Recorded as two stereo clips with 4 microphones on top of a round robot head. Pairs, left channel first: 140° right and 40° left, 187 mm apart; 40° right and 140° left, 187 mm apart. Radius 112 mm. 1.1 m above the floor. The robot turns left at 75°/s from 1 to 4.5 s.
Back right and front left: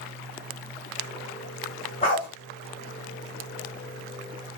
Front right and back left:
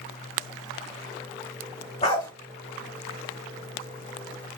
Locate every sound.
2.0 s a dog barking: 90° right, 1.1 m; by 2.3 s 115° right, 1.1 m